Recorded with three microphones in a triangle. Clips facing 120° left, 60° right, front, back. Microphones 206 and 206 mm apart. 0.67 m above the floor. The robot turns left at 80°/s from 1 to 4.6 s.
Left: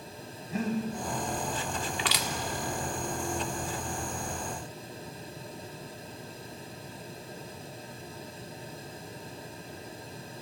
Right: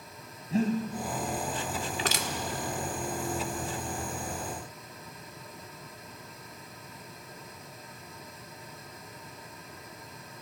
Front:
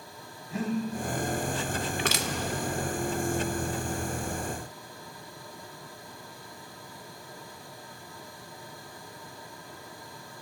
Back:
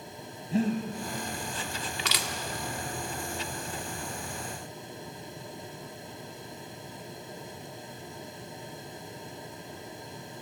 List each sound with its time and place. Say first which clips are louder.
0.5 s breathing: right 4 dB, back 3 dB; 120° right, 2.5 m
2.0 s crushing: right 1 dB, front 5 dB; 20° right, 1.3 m; by 2.3 s 40° right, 1.3 m